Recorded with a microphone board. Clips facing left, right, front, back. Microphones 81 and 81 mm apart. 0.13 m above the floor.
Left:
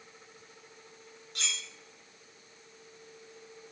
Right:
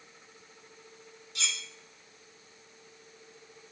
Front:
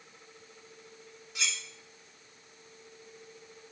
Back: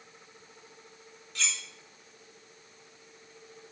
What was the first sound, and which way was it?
Cutlery clinking, 80° left.